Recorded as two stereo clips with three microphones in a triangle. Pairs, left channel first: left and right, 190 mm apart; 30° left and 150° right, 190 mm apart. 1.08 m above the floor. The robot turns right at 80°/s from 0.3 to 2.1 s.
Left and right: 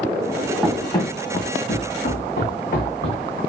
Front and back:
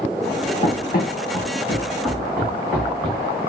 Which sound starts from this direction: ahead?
Running footsteps, at 0.6 s.